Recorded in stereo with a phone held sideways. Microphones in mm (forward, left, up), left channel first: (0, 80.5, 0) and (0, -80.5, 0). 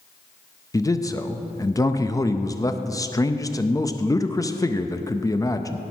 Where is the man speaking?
20° left (ahead or behind), 0.6 m.